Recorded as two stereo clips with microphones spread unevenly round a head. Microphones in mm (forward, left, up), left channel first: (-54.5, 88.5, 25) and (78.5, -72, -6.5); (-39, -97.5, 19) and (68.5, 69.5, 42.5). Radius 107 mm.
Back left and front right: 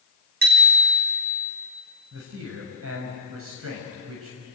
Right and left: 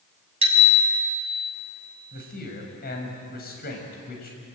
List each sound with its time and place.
0.4 s a bicycle bell: 5° right, 5 m
2.1 s a man speaking: 80° right, 6 m